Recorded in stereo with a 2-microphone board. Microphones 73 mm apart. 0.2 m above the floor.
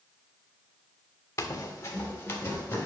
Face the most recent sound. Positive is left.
turn(degrees=30)  # may be behind; listen again after turning